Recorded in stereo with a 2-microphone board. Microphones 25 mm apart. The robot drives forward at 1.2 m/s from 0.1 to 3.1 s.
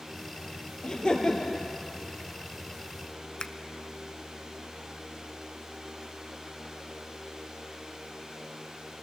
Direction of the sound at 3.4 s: 30° left (ahead or behind).